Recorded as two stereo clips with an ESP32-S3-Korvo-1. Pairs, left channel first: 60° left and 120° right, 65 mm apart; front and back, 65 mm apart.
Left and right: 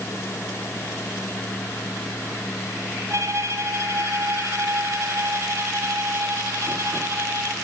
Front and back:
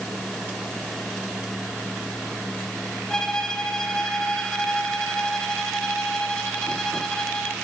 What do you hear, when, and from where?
3.1 s a violin: 80° right, 3.5 m